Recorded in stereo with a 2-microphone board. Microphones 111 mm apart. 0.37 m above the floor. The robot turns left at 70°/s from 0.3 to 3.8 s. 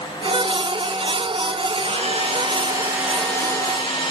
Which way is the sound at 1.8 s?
85° right.